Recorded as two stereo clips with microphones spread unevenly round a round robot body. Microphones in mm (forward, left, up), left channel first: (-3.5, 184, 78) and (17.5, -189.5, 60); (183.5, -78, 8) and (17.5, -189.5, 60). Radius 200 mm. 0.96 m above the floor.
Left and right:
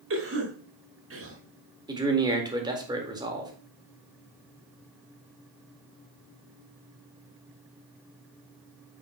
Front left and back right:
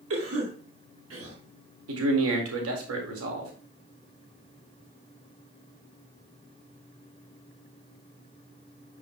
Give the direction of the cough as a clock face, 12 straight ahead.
5 o'clock.